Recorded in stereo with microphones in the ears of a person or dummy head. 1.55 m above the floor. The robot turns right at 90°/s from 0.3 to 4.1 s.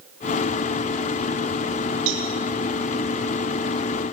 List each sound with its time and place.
2.1 s a cowbell: 75° right (ahead or behind), 5 m; by 2.3 s 55° right (ahead or behind), 5 m